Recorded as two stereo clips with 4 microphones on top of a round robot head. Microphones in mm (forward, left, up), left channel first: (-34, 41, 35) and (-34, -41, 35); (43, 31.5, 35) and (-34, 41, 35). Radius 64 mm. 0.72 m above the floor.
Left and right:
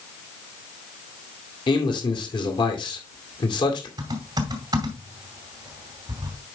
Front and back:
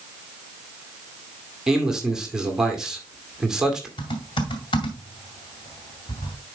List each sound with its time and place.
1.7 s a man speaking: 90° left, 2 m
4.0 s typing on a keyboard: 40° right, 2 m